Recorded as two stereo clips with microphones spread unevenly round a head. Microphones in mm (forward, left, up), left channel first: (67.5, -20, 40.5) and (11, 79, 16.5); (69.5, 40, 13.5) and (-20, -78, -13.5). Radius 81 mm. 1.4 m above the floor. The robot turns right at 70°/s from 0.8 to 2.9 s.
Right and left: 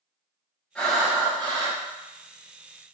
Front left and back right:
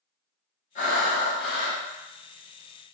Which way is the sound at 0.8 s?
20° left.